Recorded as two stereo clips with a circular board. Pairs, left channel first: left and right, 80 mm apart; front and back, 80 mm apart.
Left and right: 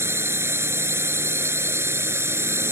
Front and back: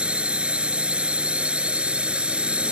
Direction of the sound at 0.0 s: 115° right.